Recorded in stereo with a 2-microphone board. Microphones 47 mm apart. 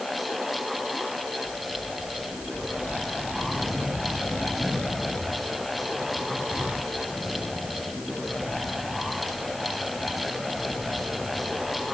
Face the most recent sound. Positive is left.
No sound to turn to.